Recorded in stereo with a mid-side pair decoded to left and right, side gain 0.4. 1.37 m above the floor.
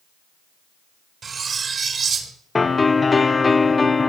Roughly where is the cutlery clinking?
Ahead right.